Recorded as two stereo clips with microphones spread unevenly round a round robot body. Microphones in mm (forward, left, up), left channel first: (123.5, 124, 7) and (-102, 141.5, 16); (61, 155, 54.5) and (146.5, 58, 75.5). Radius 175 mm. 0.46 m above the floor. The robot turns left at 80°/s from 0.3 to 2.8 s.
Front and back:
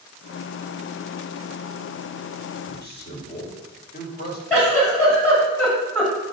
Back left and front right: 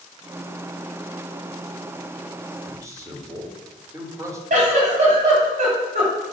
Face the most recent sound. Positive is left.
turn(degrees=-85)